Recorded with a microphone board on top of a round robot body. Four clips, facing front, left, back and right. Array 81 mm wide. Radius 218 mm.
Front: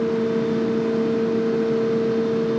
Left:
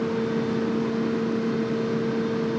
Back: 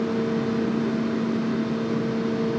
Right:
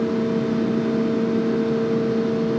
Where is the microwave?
No microwave in this recording.